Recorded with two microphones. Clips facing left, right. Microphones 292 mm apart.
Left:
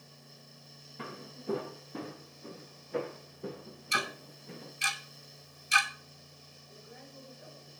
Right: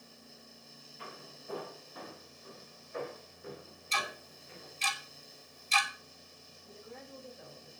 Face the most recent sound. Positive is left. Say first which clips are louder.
# right 4 dB
turn(degrees=-85)